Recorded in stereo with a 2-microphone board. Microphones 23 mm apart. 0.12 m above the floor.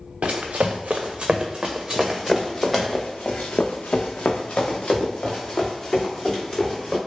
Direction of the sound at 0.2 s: 85° right.